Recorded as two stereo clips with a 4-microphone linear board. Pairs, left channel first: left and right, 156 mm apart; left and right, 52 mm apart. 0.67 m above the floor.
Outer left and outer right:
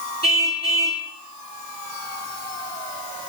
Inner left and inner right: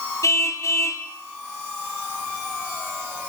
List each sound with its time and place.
0.2 s a car horn: 85° left, 7 m